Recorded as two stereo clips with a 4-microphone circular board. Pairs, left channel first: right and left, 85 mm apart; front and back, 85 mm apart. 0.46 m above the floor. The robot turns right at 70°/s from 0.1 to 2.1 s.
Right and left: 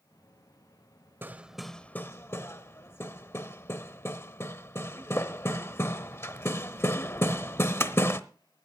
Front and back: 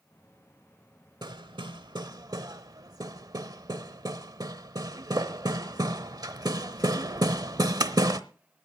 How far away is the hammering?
About 0.9 m.